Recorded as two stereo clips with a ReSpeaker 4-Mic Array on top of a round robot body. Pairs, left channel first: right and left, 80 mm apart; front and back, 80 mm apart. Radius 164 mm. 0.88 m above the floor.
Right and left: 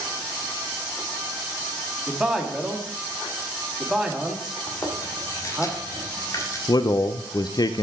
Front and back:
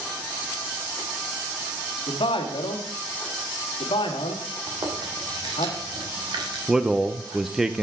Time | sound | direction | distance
2.1 | a man speaking | 5° left | 1.7 m
4.7 | chewing | 140° right | 1.8 m
6.7 | a man speaking | 95° right | 0.6 m